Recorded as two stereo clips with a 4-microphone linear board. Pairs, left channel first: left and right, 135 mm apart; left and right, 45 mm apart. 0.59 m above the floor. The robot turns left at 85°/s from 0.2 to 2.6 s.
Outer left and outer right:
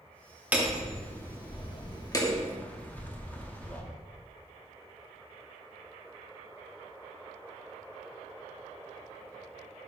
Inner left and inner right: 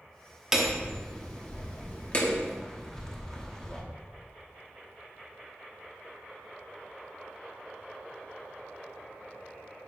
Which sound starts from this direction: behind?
Hammering, at 0.5 s.